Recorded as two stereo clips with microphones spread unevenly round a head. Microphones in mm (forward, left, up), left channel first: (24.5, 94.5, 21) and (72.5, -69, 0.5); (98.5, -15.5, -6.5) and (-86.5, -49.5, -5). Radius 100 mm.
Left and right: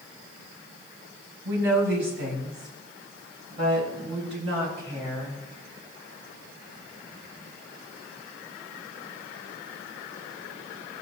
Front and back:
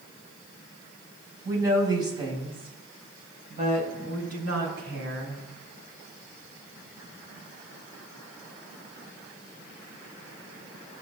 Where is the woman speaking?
95° right, 5.5 m; by 5.4 s 140° right, 8 m.